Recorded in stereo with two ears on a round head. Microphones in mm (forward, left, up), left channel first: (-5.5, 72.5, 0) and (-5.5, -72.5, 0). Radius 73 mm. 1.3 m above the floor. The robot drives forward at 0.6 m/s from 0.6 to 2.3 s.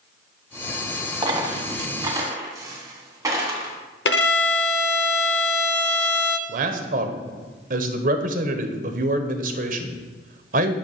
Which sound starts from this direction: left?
A violin, at 4.0 s.